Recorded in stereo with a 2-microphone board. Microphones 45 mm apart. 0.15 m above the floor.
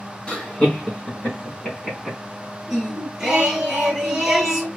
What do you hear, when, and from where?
0.3 s laughter: 25° left (ahead or behind), 1.7 m; by 2.2 s 10° left (ahead or behind), 1.8 m
2.7 s singing: 5° right (ahead or behind), 2 m